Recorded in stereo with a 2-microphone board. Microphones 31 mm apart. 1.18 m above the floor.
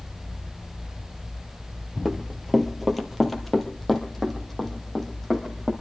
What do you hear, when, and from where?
2.0 s running footsteps: 5° right (ahead or behind), 1.5 m; by 5.7 s 5° left (ahead or behind), 4 m